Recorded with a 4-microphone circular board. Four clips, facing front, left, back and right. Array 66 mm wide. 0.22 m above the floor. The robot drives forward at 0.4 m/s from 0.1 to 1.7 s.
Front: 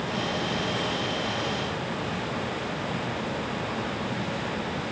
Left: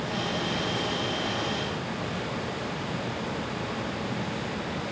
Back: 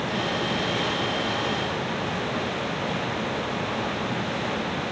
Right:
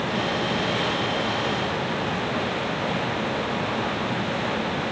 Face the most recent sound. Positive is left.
No sound to turn to.